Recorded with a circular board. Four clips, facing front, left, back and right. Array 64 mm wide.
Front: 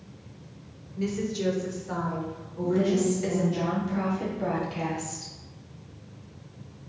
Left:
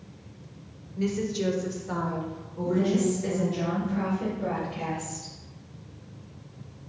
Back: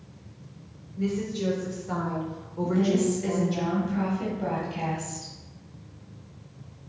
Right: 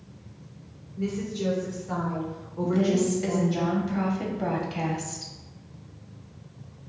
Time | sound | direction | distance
1.0 | a woman speaking | 60° left | 1.0 m
2.6 | a woman speaking | 80° right | 1.6 m